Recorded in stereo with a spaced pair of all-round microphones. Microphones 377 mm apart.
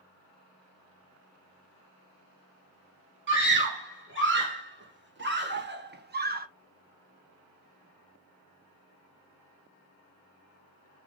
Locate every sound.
3.3 s a scream: 30° right (ahead or behind), 2 m; by 6.5 s 25° right (ahead or behind), 0.7 m